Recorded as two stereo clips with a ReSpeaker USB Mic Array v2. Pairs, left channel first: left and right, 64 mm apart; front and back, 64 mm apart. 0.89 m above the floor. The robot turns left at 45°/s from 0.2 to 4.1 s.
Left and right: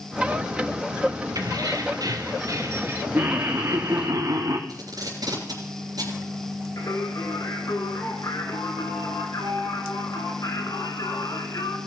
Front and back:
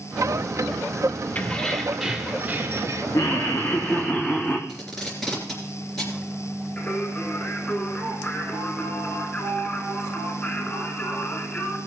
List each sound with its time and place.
1.4 s keys jangling: 65° right, 1.5 m; by 3.0 s 140° right, 1.5 m
3.1 s laughter: 30° right, 1.2 m; by 4.6 s 70° right, 1.2 m
4.7 s tape being pulled: 85° right, 3.5 m
6.8 s singing: 65° left, 3.5 m